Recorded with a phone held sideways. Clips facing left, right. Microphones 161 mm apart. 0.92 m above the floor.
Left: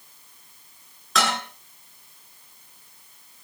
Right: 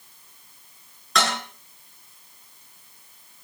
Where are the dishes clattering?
Centre (ahead or behind), 9.5 m.